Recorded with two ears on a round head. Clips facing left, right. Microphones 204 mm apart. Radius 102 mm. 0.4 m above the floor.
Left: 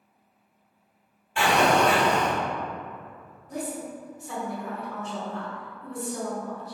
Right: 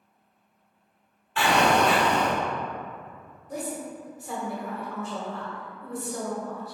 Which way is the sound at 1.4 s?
15° left (ahead or behind).